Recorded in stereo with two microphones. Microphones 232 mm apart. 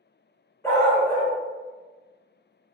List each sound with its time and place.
0.6 s a dog barking: 10° left (ahead or behind), 1.1 m